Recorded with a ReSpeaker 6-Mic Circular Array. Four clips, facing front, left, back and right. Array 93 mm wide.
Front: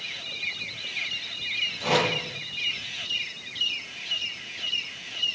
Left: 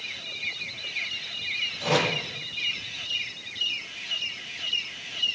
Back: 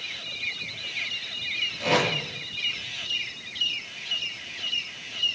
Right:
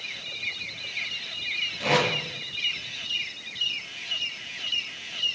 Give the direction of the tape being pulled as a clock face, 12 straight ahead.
4 o'clock.